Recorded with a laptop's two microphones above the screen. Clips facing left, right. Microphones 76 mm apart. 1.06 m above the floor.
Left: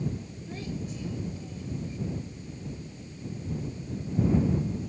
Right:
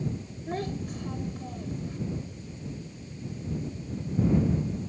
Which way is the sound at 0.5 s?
50° right (ahead or behind).